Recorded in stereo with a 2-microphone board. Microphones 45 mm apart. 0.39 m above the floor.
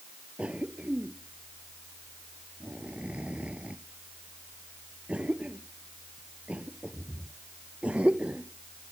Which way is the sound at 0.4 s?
25° right (ahead or behind).